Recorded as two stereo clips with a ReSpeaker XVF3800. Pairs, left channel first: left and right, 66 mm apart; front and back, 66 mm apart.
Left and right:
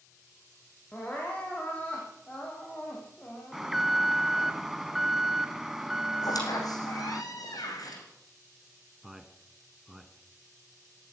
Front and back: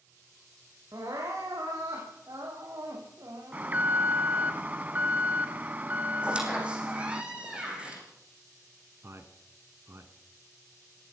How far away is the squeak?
About 5 m.